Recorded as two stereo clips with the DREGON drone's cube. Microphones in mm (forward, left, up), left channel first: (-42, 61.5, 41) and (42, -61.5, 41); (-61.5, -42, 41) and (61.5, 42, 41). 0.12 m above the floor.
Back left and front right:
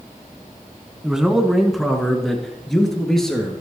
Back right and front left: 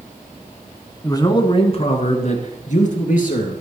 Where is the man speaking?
135° right, 1.2 m; by 3.6 s 150° right, 2.5 m.